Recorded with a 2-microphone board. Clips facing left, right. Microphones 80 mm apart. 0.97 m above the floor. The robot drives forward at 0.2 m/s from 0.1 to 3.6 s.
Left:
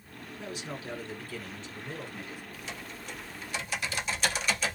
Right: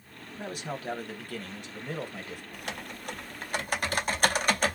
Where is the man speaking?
50° right (ahead or behind), 1.1 m; by 2.4 s 65° right (ahead or behind), 0.9 m.